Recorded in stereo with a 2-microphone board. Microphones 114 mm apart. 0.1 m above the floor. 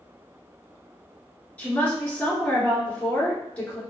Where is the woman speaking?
15° left (ahead or behind), 1.4 m.